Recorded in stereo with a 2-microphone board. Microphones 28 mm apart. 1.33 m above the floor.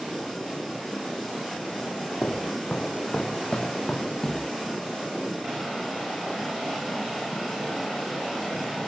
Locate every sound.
2.2 s footsteps: 45° left (ahead or behind), 2.5 m; by 4.5 s 20° left (ahead or behind), 1.9 m